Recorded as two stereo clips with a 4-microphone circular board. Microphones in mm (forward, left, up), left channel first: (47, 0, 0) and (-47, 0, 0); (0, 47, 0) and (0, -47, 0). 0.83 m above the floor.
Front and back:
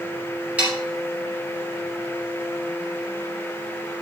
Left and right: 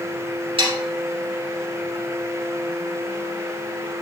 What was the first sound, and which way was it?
Sawing, 105° right.